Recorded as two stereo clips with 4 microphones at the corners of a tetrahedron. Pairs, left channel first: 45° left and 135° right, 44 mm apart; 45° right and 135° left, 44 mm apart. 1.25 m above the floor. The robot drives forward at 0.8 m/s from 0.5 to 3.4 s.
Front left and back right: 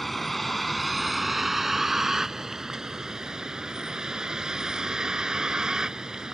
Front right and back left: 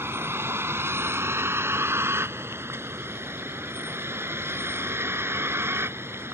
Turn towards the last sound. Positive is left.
turn(degrees=150)